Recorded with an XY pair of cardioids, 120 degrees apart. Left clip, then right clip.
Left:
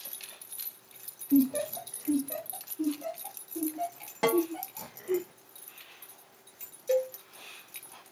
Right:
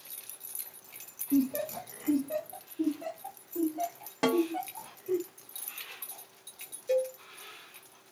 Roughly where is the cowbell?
Ahead.